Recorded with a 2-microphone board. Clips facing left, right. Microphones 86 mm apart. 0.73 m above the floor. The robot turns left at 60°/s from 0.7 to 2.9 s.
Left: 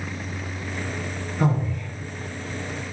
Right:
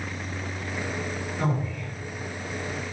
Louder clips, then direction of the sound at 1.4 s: Left 5 dB; 20° left (ahead or behind).